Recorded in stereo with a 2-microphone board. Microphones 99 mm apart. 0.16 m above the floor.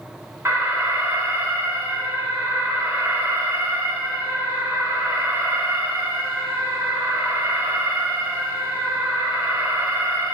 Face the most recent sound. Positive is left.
turn(degrees=-30)  # may be behind; listen again after turning